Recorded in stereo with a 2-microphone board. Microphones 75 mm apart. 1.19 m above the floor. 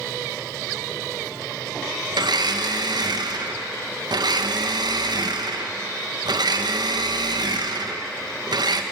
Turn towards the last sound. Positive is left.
turn(degrees=-70)  # may be behind; listen again after turning